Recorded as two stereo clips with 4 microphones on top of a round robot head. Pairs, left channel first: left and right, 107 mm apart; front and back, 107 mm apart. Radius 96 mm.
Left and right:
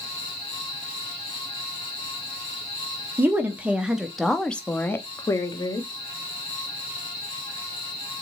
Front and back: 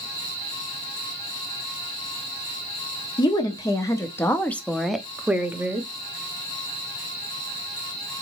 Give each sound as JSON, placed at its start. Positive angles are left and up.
{"t": 3.2, "sound": "a woman speaking", "azimuth_deg": -25, "distance_m": 1.2}